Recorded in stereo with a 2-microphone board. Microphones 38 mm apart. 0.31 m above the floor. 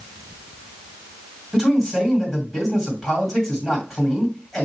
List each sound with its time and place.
1.5 s a man speaking: 10° left (ahead or behind), 2 m